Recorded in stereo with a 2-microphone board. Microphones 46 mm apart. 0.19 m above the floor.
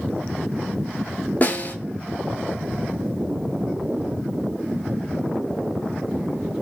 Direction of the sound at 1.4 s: 35° left (ahead or behind).